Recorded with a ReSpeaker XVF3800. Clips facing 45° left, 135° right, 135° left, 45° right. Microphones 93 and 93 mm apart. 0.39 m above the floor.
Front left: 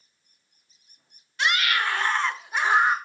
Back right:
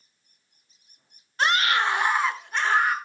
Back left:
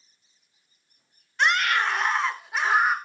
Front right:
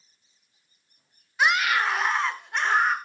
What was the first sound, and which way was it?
A scream, 125° right.